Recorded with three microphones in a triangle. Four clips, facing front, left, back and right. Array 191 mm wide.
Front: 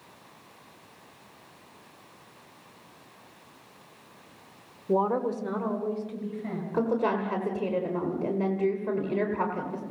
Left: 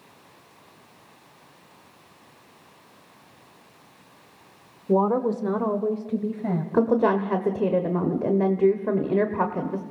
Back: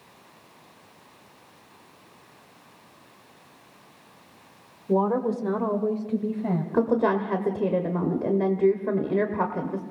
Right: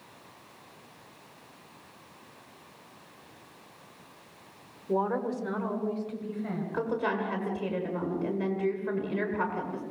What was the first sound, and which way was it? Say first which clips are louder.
A woman speaking: left 7 dB, back 2 dB; 80° left.